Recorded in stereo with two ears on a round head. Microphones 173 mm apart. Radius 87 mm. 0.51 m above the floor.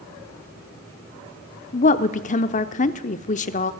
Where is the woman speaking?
40° left (ahead or behind), 0.9 m.